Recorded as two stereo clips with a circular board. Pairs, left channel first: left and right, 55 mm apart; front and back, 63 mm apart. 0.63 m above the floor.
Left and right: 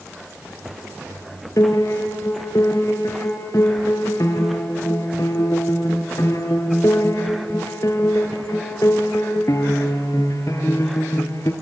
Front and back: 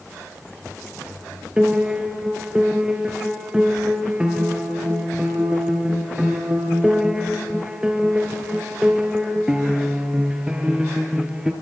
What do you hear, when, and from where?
1.6 s a piano: 105° left, 2.5 m